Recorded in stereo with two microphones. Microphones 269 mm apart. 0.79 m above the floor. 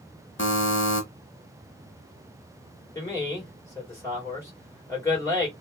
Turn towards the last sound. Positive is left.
turn(degrees=10)  # may be behind; listen again after turning